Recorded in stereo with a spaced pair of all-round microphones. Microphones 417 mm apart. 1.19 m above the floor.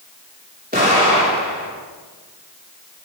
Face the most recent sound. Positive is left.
turn(degrees=-20)  # may be behind; listen again after turning